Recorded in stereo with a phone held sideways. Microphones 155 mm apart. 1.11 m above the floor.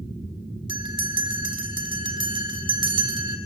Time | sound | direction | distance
0.7 | a bell | 30° right (ahead or behind) | 1.5 m